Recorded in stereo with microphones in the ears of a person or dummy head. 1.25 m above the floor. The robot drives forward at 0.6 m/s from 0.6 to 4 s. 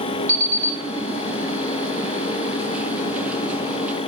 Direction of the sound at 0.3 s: 20° right (ahead or behind).